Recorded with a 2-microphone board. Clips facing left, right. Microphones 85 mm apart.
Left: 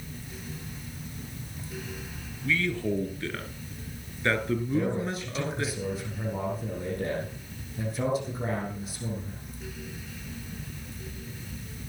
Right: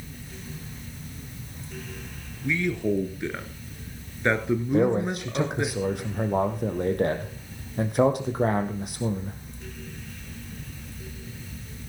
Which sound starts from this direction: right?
A man speaking, at 4.7 s.